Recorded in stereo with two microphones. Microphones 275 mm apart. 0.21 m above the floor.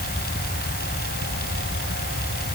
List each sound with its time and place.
Only background noise.